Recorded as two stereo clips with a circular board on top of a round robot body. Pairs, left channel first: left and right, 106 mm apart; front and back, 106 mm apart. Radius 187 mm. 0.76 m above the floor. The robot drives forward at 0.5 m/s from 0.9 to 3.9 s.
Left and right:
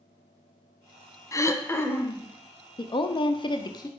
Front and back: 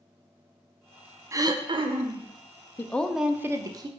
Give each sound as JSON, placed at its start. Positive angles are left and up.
{"t": 1.3, "sound": "throat clearing", "azimuth_deg": 135, "distance_m": 0.5}
{"t": 2.8, "sound": "a woman speaking", "azimuth_deg": 65, "distance_m": 0.6}